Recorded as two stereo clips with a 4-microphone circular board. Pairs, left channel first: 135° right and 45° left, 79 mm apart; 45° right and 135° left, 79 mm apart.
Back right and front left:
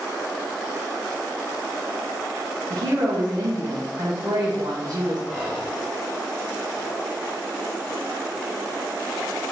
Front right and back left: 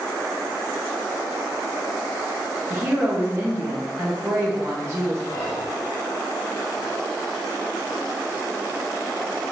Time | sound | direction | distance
2.7 | a woman speaking | 80° left | 1.1 m
5.3 | whispering | 20° right | 0.8 m